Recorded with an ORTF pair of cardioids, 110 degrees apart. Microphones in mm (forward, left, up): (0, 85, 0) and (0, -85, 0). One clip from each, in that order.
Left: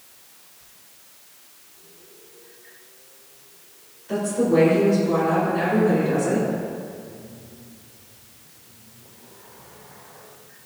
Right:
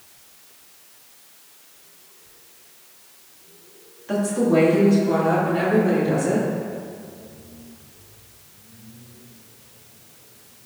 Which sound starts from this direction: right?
A woman speaking, at 4.1 s.